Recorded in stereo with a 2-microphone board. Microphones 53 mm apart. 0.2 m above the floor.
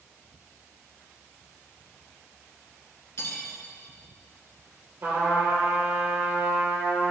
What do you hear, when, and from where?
3.2 s cutlery clinking: 60° left (ahead or behind), 1.5 m
5.0 s a trumpet: 60° right (ahead or behind), 3 m